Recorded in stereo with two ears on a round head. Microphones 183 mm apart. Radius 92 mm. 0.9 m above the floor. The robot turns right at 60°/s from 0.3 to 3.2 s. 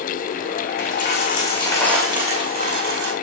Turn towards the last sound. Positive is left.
turn(degrees=-110)